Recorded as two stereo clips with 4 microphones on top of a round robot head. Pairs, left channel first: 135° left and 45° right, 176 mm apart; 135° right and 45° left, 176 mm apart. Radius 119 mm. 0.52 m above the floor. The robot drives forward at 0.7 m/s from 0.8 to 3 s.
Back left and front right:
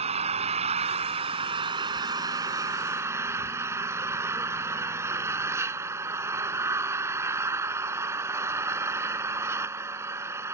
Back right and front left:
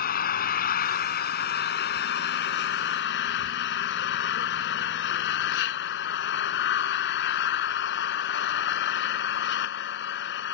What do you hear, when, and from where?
0.0 s an engine running: 100° right; by 10.6 s 120° right